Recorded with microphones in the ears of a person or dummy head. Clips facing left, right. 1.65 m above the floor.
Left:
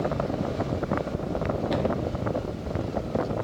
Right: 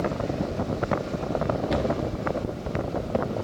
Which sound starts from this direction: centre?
A cupboard door, at 1.7 s.